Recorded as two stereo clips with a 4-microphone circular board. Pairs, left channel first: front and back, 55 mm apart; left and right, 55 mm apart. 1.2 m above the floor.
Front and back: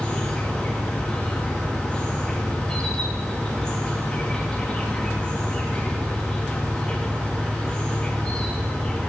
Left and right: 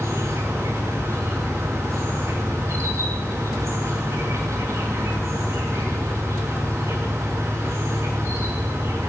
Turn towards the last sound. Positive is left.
turn(degrees=-75)